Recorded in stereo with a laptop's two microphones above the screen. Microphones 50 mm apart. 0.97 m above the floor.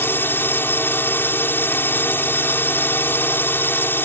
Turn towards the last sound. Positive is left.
turn(degrees=50)  # may be behind; listen again after turning